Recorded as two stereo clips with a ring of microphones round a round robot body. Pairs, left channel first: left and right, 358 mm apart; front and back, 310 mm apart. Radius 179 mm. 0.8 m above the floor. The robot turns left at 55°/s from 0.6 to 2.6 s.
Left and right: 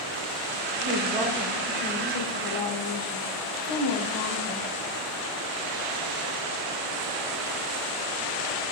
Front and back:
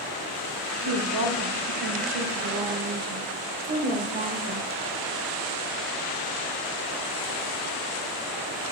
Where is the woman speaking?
140° right, 3 m; by 4.7 s 120° left, 3 m.